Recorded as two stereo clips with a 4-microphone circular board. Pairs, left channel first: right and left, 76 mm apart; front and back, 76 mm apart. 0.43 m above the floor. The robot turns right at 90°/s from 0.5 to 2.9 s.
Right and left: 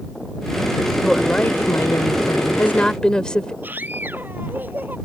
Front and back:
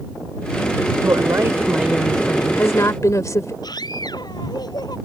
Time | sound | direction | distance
1.0 | a woman speaking | 175° left | ?
3.6 | a scream | 25° left | ?